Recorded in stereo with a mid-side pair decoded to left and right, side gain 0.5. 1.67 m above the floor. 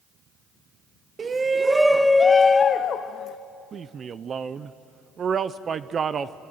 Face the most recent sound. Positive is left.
turn(degrees=-40)